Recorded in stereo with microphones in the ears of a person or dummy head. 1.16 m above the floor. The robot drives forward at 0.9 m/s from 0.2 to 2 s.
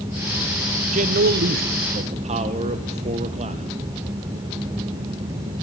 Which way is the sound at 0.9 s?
40° right (ahead or behind).